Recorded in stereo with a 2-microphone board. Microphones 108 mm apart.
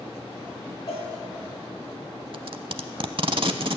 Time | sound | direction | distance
0.9 | a cowbell | 45° left (ahead or behind) | 4.5 m
2.3 | tape being pulled | 55° right (ahead or behind) | 0.6 m